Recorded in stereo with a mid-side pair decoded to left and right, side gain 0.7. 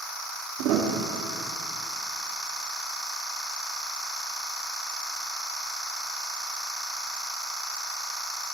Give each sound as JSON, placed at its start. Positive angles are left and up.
{"t": 0.6, "sound": "a piano", "azimuth_deg": -60, "distance_m": 3.0}